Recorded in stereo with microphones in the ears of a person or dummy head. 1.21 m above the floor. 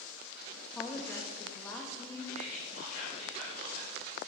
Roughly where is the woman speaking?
Centre.